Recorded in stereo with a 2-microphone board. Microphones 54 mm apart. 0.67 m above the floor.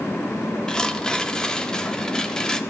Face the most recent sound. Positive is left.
turn(degrees=15)  # may be behind; listen again after turning